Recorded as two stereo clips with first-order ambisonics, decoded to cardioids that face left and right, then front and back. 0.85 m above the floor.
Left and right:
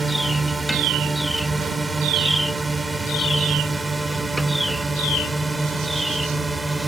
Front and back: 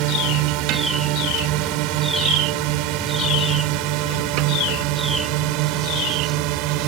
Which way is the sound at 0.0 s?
170° right.